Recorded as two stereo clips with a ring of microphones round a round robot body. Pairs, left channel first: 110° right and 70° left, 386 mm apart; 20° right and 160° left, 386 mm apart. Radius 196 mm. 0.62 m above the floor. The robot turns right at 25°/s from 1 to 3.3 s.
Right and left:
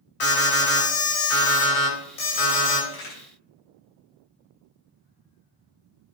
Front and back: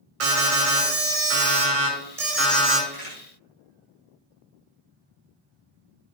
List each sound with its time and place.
0.2 s an alarm: 150° right, 5.5 m; by 2.8 s 105° right, 5.5 m
2.9 s a crack: 90° right, 6 m; by 3.2 s 85° right, 6 m